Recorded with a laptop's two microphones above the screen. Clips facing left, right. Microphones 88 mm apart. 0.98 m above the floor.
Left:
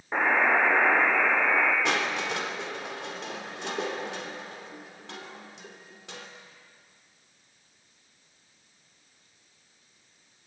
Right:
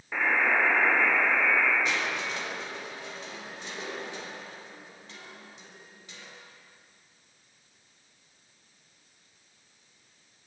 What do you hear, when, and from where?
0.1 s a buzzer: 35° left (ahead or behind), 8.5 m
1.9 s crushing: 75° left (ahead or behind), 3.5 m